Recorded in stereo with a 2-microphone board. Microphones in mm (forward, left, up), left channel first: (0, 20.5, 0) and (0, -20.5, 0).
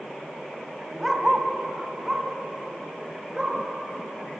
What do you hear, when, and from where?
1.0 s a dog barking: 10° right (ahead or behind), 1.6 m; by 3.6 s 20° right (ahead or behind), 5.5 m